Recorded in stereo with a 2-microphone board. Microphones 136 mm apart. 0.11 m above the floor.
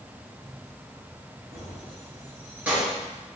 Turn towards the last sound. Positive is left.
turn(degrees=-5)  # may be behind; listen again after turning